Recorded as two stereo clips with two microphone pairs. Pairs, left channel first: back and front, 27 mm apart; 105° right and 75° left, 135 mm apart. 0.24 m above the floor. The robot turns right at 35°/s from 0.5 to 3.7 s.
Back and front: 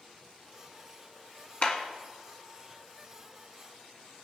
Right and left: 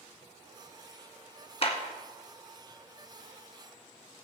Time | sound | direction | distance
1.6 | a clap | 150° right | 1.9 m